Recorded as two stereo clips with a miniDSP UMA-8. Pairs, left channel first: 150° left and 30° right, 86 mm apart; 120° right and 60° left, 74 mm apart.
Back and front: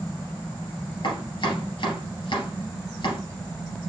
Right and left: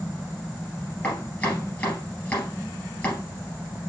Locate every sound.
1.0 s chopping: 170° left, 3 m